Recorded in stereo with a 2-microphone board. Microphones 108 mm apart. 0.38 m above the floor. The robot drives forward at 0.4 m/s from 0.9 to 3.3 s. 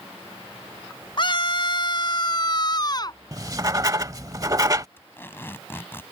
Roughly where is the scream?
Left.